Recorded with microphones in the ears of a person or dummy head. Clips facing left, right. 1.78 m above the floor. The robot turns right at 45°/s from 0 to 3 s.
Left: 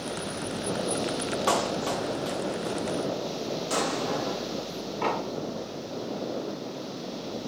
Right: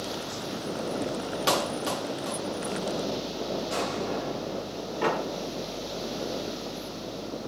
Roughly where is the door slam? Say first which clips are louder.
Right 2 dB; centre.